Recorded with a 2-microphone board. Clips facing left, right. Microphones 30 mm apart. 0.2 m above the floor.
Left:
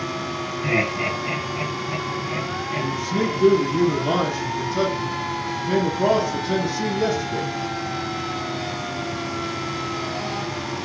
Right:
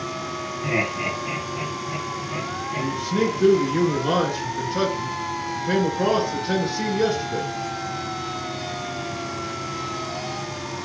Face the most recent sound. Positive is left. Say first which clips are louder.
# right 1 dB
turn(degrees=-50)  # may be behind; listen again after turning